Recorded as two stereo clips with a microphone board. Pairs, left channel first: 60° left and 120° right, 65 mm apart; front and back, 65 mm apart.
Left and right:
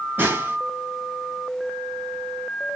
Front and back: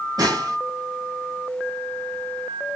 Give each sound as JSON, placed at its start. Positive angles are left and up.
{"t": 0.2, "sound": "a snare drum", "azimuth_deg": 175, "distance_m": 1.4}